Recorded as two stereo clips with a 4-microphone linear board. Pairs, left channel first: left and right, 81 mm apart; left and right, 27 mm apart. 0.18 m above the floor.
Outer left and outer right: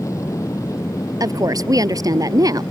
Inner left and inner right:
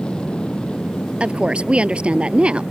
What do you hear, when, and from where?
0.0 s an aircraft: 40° left (ahead or behind)
1.2 s a woman speaking: 45° right (ahead or behind)